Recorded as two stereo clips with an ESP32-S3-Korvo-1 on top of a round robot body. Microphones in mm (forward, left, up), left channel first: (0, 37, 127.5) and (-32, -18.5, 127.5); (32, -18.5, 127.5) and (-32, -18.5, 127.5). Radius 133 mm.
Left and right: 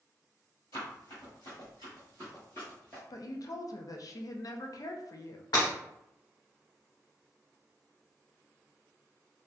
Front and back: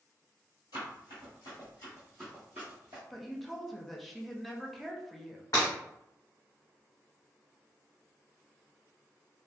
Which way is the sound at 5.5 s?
50° left.